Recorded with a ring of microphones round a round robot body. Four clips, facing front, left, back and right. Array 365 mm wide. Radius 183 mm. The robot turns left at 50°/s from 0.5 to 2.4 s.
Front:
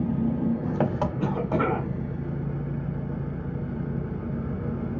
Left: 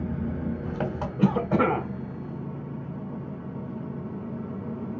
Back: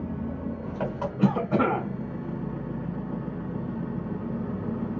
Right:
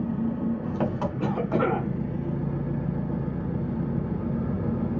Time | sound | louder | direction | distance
0.0 | an engine running | right 4 dB, front 7 dB | 25° left | 1.3 m
1.2 | a cough | left 4 dB, back 5 dB | 110° left | 2 m